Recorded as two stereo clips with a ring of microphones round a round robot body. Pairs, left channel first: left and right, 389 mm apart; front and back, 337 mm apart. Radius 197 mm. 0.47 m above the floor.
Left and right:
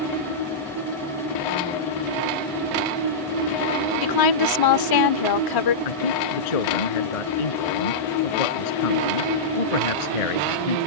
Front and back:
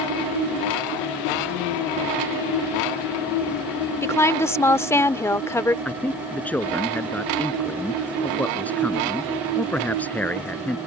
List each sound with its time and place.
4.0 s a woman speaking: 80° left
5.8 s a man speaking: 85° left